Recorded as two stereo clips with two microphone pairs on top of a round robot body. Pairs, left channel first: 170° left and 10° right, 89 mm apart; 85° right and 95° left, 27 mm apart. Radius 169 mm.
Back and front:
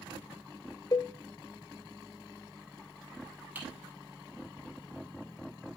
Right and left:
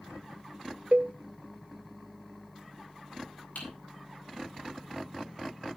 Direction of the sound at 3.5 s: 85° right.